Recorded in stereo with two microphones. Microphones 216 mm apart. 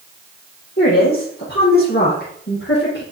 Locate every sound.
0.8 s a woman speaking: 60° left (ahead or behind), 6.5 m